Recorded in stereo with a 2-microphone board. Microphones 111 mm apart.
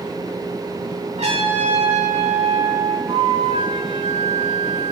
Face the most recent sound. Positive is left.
turn(degrees=-60)  # may be behind; listen again after turning